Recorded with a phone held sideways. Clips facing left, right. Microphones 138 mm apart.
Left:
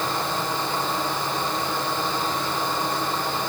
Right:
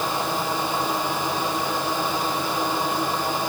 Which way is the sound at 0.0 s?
10° right (ahead or behind).